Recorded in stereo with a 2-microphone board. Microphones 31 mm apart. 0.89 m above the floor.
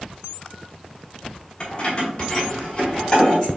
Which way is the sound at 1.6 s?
30° left (ahead or behind).